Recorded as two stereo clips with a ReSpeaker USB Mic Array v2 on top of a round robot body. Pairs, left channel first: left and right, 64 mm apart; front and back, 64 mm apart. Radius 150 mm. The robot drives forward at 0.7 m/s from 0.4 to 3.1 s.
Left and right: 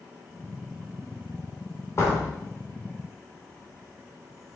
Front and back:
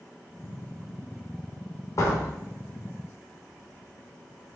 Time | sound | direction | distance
2.0 | a door slam | 40° left | 3 m